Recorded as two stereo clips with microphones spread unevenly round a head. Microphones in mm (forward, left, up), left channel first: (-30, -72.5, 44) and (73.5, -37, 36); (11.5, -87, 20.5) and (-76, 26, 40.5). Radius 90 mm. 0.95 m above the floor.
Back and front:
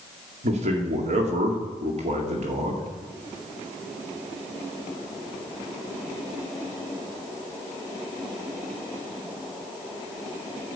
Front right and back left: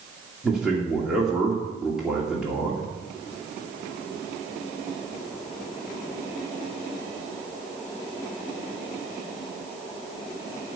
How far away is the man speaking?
About 2 m.